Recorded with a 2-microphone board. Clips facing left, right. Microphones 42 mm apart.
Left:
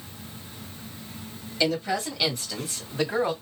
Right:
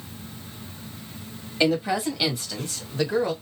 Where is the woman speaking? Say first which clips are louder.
Right 3 dB; 25° right (ahead or behind), 1.6 m; by 3.3 s 20° left (ahead or behind), 2.0 m.